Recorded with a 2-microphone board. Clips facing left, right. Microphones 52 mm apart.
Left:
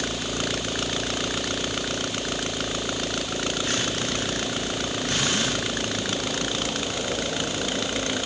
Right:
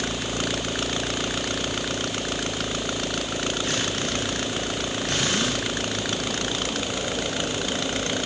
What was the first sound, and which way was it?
Only background noise.